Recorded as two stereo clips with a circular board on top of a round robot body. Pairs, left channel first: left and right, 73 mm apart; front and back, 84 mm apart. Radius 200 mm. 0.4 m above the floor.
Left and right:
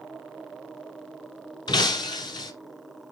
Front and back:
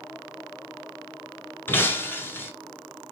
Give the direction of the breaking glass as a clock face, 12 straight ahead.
10 o'clock.